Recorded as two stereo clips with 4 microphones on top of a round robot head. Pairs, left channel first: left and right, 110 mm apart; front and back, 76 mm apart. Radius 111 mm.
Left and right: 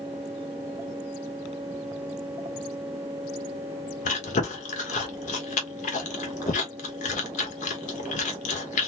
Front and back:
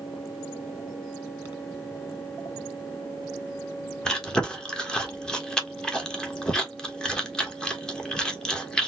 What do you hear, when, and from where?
4.0 s chewing: 80° left, 1.1 m